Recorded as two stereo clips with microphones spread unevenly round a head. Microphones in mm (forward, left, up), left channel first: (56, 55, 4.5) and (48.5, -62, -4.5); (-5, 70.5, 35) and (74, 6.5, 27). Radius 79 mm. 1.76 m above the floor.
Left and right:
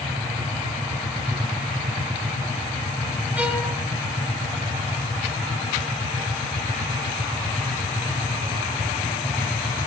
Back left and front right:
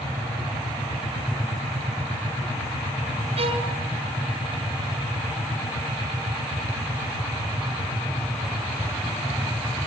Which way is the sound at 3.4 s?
15° right.